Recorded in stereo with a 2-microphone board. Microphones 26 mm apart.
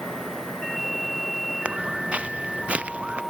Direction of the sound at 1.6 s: 55° right (ahead or behind).